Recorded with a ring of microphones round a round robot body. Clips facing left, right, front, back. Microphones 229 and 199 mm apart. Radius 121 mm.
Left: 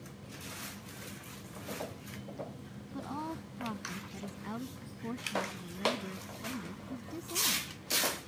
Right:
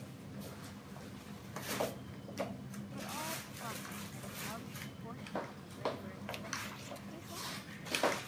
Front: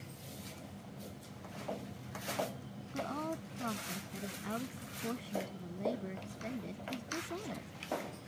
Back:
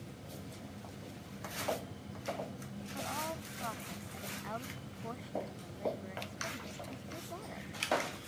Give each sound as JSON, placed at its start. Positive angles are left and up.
{"t": 2.9, "sound": "a woman speaking", "azimuth_deg": 55}